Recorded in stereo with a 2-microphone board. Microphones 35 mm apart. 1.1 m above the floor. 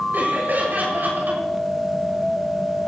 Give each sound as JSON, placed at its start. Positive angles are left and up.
{"t": 0.1, "sound": "laughter", "side_deg": -60, "distance_m": 6.5}